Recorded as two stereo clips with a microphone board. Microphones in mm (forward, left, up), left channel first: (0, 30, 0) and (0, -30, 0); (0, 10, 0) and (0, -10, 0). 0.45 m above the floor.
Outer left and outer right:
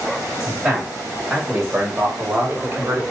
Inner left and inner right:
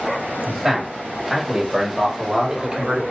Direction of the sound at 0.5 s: 15° right (ahead or behind).